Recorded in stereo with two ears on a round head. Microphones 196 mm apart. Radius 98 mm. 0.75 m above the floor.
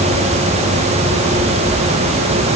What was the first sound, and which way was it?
Only background noise.